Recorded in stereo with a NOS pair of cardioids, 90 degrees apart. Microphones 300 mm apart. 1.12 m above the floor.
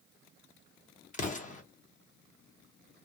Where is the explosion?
25° left, 1.0 m.